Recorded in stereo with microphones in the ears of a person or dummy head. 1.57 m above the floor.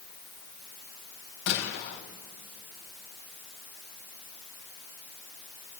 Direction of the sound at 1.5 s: 65° left (ahead or behind).